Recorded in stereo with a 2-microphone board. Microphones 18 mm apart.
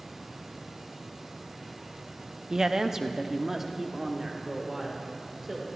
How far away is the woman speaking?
About 0.6 m.